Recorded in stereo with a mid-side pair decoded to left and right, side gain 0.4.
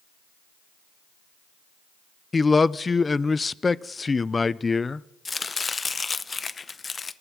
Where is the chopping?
35° left, 0.6 m.